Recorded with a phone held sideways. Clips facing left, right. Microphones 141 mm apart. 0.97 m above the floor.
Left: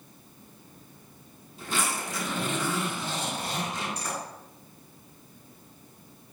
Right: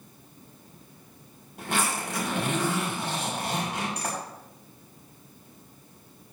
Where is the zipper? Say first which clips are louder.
Right 2 dB; 70° right (ahead or behind), 6.5 m.